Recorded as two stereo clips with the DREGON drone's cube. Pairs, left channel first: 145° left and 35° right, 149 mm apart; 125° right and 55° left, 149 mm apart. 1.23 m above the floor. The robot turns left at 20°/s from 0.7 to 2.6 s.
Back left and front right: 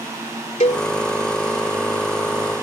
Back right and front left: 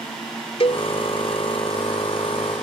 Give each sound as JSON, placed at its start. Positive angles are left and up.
{"t": 0.6, "sound": "a cowbell", "azimuth_deg": -175}